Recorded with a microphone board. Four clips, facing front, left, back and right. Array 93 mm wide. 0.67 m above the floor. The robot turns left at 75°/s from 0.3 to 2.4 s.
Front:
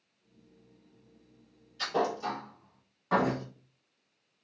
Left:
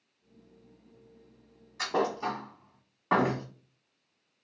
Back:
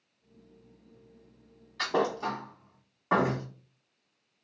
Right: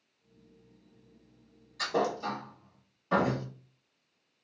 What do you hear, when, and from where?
1.8 s a thud: 160° left, 1.1 m; by 3.5 s 115° left, 1.1 m